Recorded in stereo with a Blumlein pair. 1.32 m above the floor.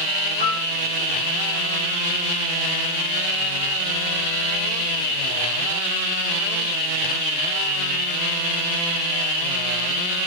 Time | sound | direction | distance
0.4 | a piano | 45° right | 1.9 m